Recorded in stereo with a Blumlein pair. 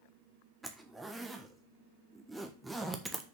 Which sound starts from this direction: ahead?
A zipper, at 0.6 s.